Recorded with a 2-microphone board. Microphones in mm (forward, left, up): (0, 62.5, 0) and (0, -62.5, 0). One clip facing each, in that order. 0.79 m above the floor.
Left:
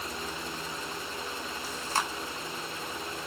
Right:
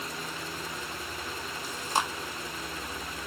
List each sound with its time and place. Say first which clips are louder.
1.6 s chewing: right 2 dB; 15° right (ahead or behind), 0.8 m